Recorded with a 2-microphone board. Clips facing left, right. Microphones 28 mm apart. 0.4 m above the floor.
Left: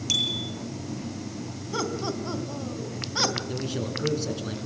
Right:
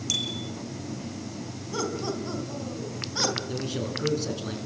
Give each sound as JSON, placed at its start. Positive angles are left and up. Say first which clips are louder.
{"t": 0.1, "sound": "a bicycle bell", "louder": "left 4 dB", "side_deg": 20, "distance_m": 8.0}
{"t": 1.7, "sound": "laughter", "louder": "left 1 dB", "side_deg": 20, "distance_m": 4.0}
{"t": 3.5, "sound": "a man speaking", "louder": "even", "side_deg": 0, "distance_m": 5.0}